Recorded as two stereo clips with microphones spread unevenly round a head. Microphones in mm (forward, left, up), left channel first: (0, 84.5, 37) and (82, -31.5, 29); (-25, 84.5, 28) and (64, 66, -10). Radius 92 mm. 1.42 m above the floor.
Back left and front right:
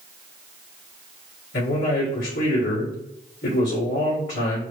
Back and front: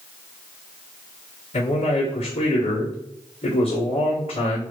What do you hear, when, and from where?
1.5 s a man speaking: 160° left, 1.9 m